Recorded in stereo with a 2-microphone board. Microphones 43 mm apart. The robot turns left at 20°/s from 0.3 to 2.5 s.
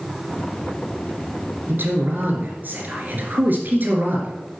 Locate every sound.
1.7 s a man speaking: 55° right (ahead or behind), 3 m; by 4.6 s 45° right (ahead or behind), 3 m